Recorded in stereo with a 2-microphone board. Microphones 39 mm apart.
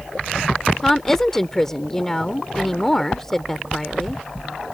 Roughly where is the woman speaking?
Centre.